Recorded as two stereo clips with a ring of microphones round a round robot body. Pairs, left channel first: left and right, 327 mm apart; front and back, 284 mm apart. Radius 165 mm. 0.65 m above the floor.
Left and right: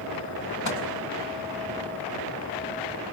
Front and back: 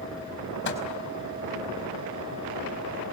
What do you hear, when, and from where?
0.7 s a microwave: 50° left, 5 m